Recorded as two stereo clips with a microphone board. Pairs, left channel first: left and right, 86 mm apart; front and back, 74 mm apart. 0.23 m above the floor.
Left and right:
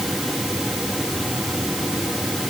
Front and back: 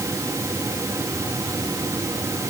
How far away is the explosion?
I don't hear an explosion.